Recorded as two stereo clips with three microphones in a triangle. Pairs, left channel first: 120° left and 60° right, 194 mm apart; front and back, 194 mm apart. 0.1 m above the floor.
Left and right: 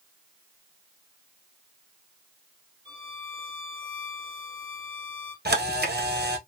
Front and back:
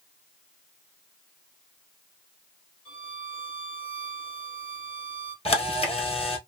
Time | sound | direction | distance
2.9 | a violin | 30° right | 2 m
5.5 | a camera shutter | 55° right | 1.1 m